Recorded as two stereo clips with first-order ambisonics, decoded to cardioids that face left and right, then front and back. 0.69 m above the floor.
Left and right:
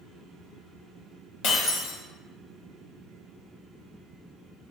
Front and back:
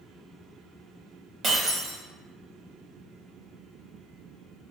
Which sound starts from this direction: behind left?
Breaking glass, at 1.4 s.